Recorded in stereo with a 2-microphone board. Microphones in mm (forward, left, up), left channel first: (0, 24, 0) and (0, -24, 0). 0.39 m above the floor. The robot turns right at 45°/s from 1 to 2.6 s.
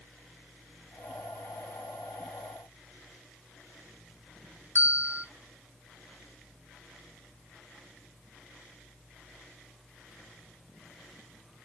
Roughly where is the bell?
Right.